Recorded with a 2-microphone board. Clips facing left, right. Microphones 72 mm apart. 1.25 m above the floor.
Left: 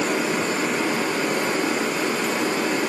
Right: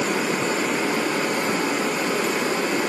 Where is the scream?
I don't hear a scream.